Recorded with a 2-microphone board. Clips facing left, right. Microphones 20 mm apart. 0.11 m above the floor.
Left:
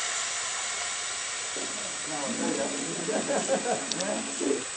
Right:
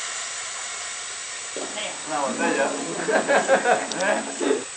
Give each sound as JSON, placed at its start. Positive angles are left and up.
{"t": 1.6, "sound": "laughter", "side_deg": -85}